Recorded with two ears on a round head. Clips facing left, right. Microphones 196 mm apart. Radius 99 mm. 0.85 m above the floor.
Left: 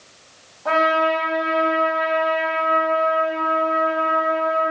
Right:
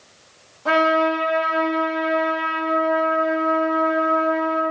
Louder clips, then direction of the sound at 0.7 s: Right 1 dB; 30° right (ahead or behind).